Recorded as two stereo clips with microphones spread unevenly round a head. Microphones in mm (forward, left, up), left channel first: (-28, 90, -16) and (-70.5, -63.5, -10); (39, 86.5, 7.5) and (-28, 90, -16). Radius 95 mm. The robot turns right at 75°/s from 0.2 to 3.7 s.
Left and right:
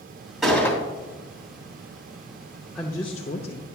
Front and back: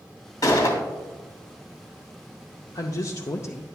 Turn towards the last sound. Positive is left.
turn(degrees=55)